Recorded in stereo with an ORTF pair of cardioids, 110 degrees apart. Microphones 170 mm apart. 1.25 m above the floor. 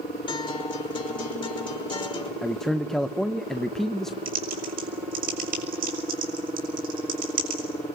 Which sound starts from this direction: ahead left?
A guitar, at 0.3 s.